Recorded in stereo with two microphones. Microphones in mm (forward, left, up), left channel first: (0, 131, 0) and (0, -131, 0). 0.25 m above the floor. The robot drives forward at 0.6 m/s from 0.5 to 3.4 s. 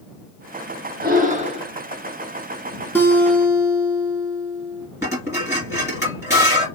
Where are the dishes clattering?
10° right (ahead or behind), 2.5 m.